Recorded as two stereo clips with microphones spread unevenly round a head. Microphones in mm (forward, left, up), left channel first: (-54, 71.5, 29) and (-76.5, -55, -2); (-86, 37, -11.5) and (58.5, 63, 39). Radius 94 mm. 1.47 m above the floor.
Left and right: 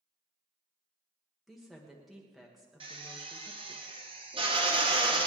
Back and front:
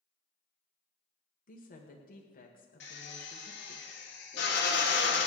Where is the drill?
150° right, 2.5 m.